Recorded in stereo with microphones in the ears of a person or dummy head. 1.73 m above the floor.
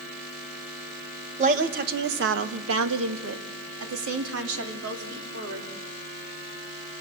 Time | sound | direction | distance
1.4 | a woman speaking | 35° right (ahead or behind) | 1.6 m